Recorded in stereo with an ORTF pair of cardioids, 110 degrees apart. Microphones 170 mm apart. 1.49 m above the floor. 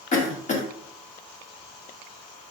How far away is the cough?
About 0.9 m.